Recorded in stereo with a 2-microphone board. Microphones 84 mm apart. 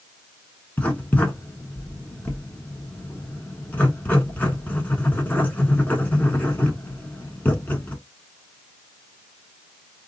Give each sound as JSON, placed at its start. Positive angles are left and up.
{"t": 0.8, "sound": "writing", "side_deg": 20, "distance_m": 0.8}